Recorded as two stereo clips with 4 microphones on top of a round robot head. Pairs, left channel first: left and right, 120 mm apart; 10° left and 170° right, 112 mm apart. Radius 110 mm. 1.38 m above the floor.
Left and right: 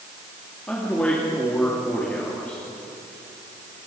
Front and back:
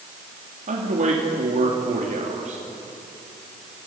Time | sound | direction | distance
0.7 | a man speaking | 170° left | 3 m